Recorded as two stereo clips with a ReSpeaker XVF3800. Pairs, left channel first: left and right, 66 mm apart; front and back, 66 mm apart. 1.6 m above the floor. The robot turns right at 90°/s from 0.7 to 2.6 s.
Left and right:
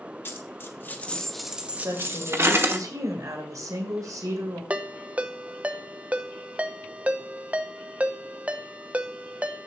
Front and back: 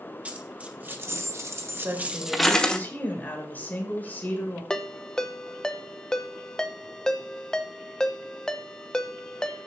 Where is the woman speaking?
135° right, 2.5 m; by 4.6 s 60° right, 2.5 m.